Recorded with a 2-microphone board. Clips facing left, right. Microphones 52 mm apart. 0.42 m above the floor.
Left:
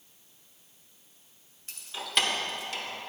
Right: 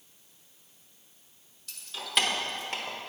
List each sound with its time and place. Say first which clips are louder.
1.7 s keys jangling: even; 30° left (ahead or behind), 0.7 m; by 3.0 s 50° right (ahead or behind), 0.9 m